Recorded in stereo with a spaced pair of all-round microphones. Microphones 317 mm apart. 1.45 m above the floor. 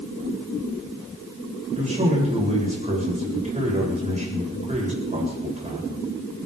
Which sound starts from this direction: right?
A man speaking, at 1.8 s.